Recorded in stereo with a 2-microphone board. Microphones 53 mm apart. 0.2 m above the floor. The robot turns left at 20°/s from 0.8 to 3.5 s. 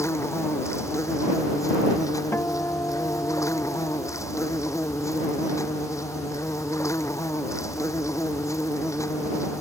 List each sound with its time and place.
0.0 s an insect: 120° left; by 9.6 s 70° left
2.3 s a guitar: 45° left (ahead or behind); by 4.2 s 70° left (ahead or behind)